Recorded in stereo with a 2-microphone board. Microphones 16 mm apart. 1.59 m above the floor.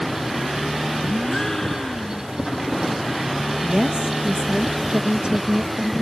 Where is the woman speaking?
85° right.